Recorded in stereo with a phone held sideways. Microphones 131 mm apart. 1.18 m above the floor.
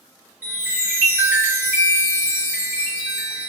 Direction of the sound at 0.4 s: 15° right (ahead or behind).